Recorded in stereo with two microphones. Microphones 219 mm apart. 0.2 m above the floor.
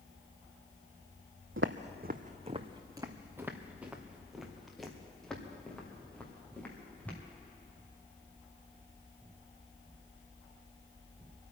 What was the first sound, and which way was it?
Footsteps, 70° right (ahead or behind).